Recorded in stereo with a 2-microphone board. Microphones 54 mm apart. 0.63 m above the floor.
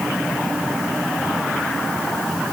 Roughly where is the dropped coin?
I don't hear a dropped coin.